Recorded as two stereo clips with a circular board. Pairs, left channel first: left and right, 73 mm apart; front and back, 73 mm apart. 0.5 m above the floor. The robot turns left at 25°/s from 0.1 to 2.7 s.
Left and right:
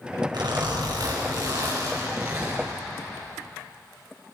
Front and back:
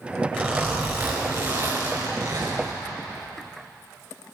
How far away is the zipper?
About 4.5 m.